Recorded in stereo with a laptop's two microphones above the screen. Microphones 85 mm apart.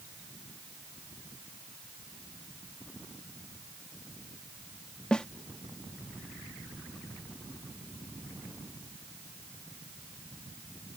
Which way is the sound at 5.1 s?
10° left (ahead or behind).